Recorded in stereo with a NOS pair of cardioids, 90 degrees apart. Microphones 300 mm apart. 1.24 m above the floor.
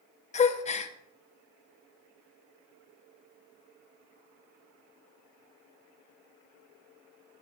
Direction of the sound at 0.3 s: 25° left.